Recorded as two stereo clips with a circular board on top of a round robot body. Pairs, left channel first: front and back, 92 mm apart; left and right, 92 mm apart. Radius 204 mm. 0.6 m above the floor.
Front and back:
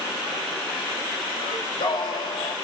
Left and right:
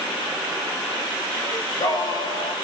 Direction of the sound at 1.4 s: 45° left.